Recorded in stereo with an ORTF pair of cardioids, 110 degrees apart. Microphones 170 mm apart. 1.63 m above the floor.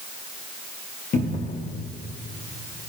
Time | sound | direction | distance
1.1 | a cupboard door | 50° left | 1.3 m